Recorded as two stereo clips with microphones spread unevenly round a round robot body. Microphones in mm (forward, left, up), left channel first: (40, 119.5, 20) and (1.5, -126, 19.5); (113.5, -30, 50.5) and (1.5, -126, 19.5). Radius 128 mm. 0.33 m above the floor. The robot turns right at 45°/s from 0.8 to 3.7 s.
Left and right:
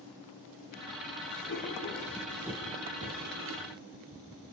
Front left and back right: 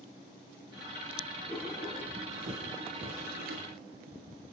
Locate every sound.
1.5 s writing: 130° left, 6 m; by 3.7 s 130° right, 6 m